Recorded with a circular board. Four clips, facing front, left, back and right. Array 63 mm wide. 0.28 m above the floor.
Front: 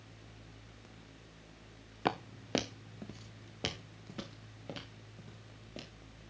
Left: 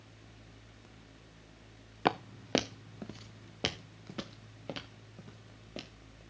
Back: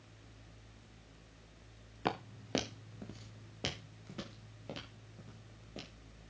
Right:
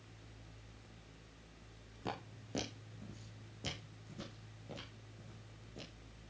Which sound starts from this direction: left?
Footsteps, at 2.0 s.